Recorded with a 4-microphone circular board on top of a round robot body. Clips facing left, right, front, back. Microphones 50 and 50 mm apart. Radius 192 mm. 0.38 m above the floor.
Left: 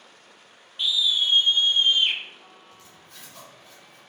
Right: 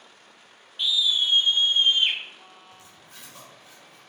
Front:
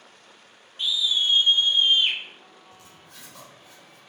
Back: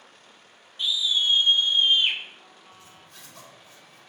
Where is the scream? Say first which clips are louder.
Even, even; 5° left, 1.6 m; by 2.2 s 105° right, 1.4 m.